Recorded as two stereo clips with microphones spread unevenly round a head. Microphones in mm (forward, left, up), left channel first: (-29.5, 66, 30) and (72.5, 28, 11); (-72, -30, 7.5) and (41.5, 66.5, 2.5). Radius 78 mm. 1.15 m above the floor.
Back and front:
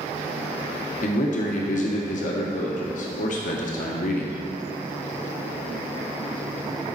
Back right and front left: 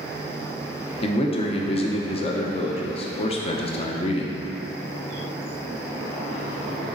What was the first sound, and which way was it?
A man speaking, 170° left.